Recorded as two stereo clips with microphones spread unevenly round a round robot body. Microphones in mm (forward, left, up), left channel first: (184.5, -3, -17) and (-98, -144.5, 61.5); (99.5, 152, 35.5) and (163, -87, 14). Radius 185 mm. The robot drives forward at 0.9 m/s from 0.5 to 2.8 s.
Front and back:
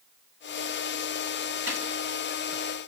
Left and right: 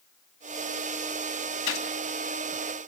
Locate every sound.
1.7 s a gunshot: 125° left, 3 m